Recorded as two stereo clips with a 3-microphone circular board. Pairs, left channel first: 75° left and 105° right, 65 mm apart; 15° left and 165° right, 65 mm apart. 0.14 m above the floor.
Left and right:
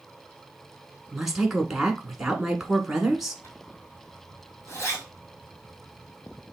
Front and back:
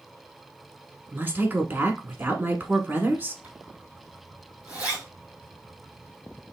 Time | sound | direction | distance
1.1 | a woman speaking | straight behind | 1.3 m
3.4 | a zipper | 125° left | 2 m